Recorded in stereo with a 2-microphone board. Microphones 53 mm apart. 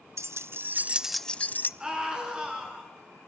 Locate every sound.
0.2 s keys jangling: 65° right (ahead or behind), 1.0 m; by 1.7 s 40° left (ahead or behind), 0.8 m
1.8 s a scream: 15° right (ahead or behind), 9 m